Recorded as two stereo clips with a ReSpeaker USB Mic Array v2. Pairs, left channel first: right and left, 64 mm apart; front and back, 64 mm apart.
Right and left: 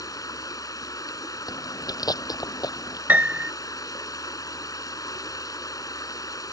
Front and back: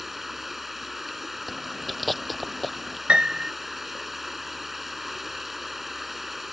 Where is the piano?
120° left.